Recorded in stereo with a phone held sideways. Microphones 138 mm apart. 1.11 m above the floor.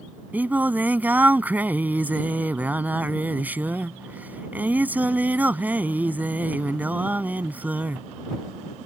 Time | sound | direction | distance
0.3 | singing | 10° right (ahead or behind) | ?